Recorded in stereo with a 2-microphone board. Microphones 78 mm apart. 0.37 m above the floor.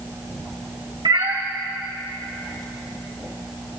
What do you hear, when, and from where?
1.1 s a cat meowing: 70° right (ahead or behind), 2 m